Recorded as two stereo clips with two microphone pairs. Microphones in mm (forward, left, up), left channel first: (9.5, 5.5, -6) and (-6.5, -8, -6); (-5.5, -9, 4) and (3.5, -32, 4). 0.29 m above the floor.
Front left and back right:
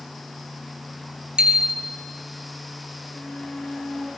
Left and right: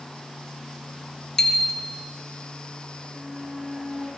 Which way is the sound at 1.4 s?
170° right.